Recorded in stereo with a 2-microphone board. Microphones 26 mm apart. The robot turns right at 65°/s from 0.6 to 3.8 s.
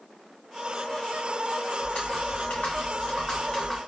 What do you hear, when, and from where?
1.8 s typing on a keyboard: 40° left, 1.4 m; by 3.8 s 170° left, 1.4 m